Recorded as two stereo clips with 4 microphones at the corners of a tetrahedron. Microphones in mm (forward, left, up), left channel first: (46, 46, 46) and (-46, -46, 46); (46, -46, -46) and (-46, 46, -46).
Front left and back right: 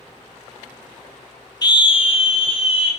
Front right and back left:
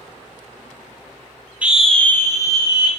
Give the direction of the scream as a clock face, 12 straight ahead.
10 o'clock.